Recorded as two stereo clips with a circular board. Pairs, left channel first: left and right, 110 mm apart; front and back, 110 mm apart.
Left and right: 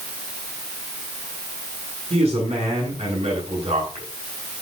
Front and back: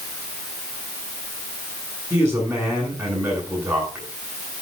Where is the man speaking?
115° right, 9.5 m.